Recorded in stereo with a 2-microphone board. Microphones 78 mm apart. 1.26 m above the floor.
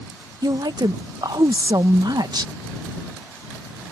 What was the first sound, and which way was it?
A woman speaking, 60° right (ahead or behind).